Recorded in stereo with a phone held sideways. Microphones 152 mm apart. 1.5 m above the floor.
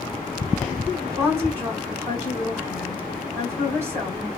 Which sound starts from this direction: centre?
A woman speaking, at 1.2 s.